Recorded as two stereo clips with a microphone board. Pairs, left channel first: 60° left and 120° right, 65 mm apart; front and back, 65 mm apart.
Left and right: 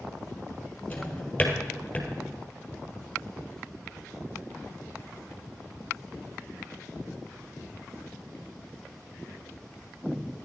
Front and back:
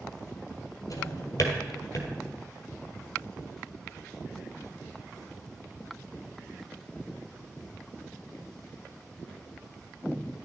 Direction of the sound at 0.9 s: 5° right.